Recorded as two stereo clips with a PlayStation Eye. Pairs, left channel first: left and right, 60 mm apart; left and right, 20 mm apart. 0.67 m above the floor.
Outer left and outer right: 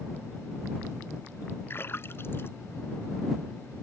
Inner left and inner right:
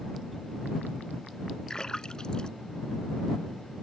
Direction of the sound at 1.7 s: 40° left (ahead or behind).